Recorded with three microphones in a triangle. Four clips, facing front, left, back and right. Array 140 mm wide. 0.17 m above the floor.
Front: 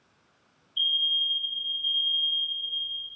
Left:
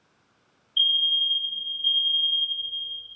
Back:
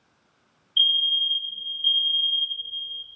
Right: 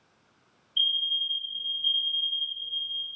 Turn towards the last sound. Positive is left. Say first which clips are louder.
# left 4 dB, back 5 dB
turn(degrees=160)